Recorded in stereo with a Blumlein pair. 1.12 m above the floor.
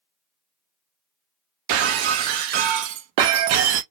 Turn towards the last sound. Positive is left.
turn(degrees=-45)